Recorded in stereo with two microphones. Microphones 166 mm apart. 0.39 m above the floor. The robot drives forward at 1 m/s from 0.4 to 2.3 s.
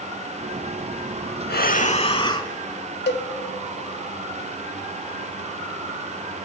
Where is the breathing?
75° left (ahead or behind), 0.5 m; by 2.5 s 30° left (ahead or behind), 1.1 m.